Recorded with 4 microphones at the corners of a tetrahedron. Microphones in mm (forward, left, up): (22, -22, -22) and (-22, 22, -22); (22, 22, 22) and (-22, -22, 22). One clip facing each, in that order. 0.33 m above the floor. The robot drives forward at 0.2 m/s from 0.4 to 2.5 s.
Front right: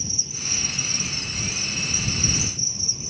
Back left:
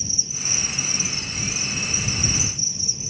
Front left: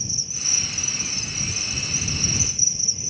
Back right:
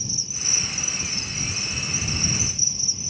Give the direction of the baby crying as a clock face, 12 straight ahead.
No baby crying in this recording.